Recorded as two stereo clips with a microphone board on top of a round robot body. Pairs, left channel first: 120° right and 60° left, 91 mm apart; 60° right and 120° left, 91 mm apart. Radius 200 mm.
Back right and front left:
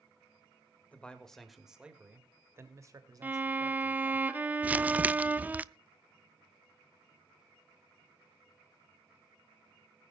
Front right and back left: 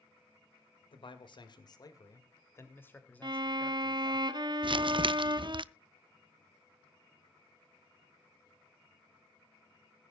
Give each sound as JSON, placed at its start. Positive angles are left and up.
{"t": 0.9, "sound": "a man speaking", "azimuth_deg": -45, "distance_m": 2.0}
{"t": 3.2, "sound": "a violin", "azimuth_deg": 125, "distance_m": 1.1}
{"t": 4.6, "sound": "crumpling", "azimuth_deg": 130, "distance_m": 0.6}